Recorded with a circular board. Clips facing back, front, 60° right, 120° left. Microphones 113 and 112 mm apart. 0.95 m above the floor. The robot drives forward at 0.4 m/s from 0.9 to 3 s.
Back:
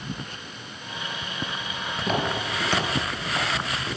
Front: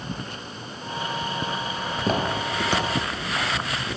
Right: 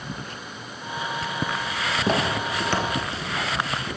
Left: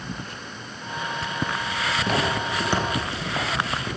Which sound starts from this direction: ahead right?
Footsteps, at 2.0 s.